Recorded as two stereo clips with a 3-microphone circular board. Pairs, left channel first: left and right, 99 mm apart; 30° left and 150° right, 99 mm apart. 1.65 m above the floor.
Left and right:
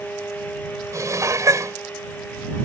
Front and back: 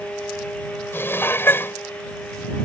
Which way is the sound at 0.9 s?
35° right.